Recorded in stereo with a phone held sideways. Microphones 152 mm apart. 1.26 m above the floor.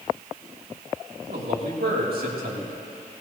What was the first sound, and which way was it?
A man speaking, 90° right.